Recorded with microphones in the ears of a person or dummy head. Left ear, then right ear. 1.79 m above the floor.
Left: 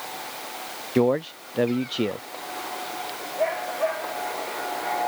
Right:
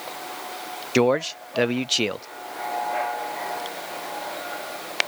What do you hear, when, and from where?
0.9 s a man speaking: 55° right (ahead or behind)